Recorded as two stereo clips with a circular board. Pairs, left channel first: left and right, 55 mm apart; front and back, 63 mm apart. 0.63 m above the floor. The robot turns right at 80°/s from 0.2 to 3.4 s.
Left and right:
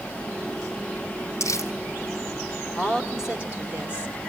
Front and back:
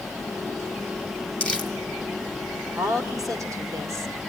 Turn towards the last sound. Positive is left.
turn(degrees=-155)